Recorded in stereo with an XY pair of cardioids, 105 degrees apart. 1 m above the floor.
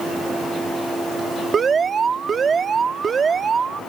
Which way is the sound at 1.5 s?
40° right.